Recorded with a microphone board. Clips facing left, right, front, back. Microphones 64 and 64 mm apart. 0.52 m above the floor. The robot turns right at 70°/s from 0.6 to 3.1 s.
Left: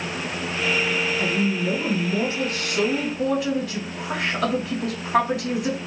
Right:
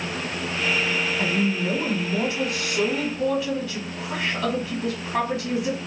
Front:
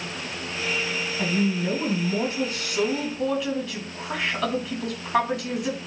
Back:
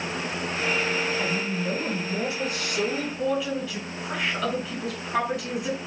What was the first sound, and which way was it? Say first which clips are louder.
A woman speaking: left 1 dB, front 3 dB; 40° right.